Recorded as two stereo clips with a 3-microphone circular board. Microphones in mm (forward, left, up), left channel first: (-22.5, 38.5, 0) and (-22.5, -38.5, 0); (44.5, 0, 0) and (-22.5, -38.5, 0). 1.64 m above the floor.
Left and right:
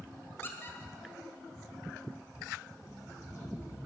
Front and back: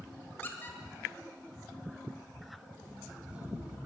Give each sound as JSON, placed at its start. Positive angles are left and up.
{"t": 0.4, "sound": "a squeak", "azimuth_deg": 65, "distance_m": 1.6}
{"t": 2.8, "sound": "an alarm clock", "azimuth_deg": 135, "distance_m": 3.0}